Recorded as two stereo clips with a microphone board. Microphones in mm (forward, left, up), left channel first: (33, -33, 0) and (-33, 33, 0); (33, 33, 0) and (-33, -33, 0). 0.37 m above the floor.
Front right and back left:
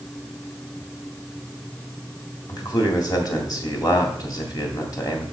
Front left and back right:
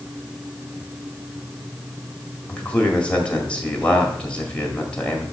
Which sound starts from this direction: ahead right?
A man speaking, at 2.5 s.